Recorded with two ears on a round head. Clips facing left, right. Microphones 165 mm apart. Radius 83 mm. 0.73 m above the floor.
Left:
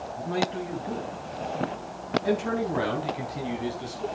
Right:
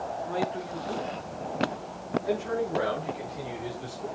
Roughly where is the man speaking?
Left.